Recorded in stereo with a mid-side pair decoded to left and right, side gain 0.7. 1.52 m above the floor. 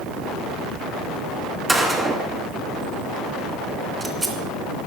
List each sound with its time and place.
1.7 s a gunshot: 10° right, 2.5 m